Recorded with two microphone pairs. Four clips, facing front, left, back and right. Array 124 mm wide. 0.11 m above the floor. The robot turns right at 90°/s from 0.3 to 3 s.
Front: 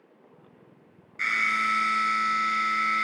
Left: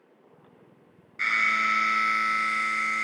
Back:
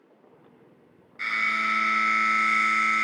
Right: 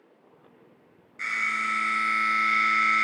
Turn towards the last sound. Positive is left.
turn(degrees=-120)